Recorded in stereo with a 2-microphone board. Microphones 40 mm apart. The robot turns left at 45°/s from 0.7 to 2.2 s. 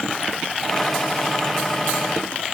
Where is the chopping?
No chopping in this recording.